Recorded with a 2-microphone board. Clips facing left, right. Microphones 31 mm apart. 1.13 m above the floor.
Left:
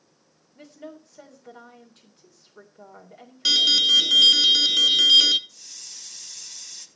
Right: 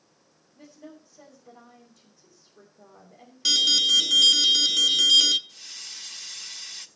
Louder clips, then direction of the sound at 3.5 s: Left 2 dB; 15° left (ahead or behind).